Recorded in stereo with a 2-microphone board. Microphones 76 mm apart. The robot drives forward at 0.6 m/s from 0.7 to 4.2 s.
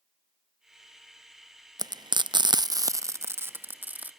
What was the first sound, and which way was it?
Frying, 60° right (ahead or behind).